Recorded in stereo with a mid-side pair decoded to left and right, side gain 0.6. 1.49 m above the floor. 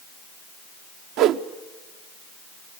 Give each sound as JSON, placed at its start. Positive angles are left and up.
{"t": 1.2, "sound": "a whoosh", "azimuth_deg": -70, "distance_m": 0.7}